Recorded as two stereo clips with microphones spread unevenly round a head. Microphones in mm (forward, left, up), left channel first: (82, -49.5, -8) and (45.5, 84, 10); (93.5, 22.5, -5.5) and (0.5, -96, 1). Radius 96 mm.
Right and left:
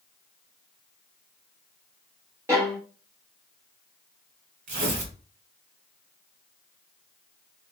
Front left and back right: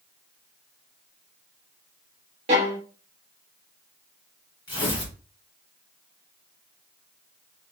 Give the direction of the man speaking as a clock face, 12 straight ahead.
I don't hear a man speaking.